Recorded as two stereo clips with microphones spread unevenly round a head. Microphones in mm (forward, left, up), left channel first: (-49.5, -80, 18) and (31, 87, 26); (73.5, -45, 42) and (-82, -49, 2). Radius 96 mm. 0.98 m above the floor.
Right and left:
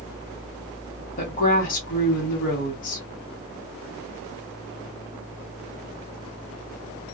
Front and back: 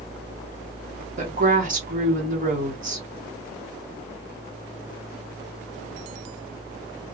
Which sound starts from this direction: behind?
A woman speaking, at 1.2 s.